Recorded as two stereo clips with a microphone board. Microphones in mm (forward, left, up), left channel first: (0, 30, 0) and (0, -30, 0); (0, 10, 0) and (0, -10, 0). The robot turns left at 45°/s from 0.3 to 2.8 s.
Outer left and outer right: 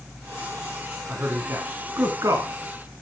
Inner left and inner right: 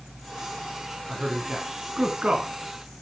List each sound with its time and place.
1.1 s a man speaking: 30° right (ahead or behind), 2.5 m; by 2.5 s 60° right (ahead or behind), 2.5 m